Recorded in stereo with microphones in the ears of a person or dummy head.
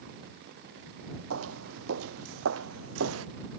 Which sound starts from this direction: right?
Footsteps, at 1.3 s.